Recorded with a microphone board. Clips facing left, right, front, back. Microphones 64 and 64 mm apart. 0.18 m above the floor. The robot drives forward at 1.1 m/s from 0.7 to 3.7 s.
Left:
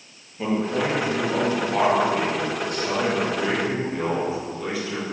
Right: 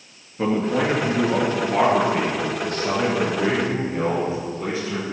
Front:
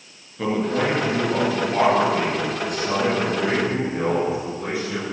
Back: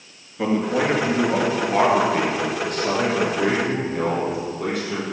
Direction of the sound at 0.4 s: 100° right.